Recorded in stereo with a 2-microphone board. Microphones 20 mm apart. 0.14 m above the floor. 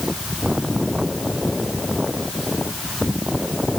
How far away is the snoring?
No snoring in this recording.